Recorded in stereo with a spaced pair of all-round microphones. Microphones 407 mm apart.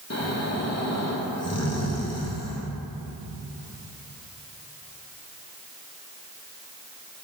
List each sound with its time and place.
0.1 s snoring: 40° left (ahead or behind), 1.0 m